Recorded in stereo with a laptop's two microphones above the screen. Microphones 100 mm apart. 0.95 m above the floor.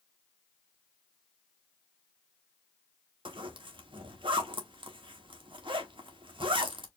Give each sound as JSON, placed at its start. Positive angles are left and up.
{"t": 3.2, "sound": "a zipper", "side_deg": -60, "distance_m": 0.9}